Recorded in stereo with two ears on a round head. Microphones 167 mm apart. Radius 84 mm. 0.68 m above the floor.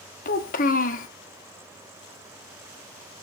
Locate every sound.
0.2 s a child speaking: 45° left (ahead or behind), 0.7 m